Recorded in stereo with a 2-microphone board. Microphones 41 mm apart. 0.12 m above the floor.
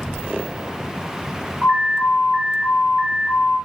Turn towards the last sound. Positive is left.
turn(degrees=-35)  # may be behind; listen again after turning